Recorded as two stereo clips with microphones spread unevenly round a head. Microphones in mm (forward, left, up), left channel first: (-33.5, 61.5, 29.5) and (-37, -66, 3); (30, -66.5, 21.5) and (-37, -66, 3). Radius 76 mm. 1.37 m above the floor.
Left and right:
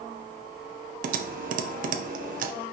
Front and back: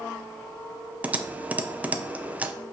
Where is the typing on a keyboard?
110° right, 0.6 m.